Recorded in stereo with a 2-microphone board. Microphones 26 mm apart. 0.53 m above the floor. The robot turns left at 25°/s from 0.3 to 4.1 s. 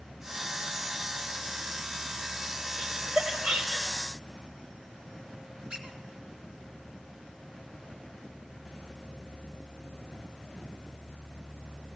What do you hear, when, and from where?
2.8 s laughter: 25° right (ahead or behind), 2.5 m; by 4.0 s 50° right (ahead or behind), 2.5 m
5.7 s a squeak: 30° right (ahead or behind), 2.5 m